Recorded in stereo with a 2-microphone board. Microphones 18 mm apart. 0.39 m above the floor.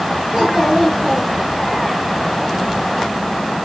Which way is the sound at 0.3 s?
45° right (ahead or behind).